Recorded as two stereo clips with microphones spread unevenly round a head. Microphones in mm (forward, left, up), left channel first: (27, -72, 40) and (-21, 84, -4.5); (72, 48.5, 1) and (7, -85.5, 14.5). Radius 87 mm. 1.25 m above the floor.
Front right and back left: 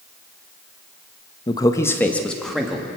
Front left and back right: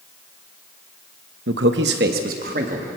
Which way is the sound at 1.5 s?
140° right.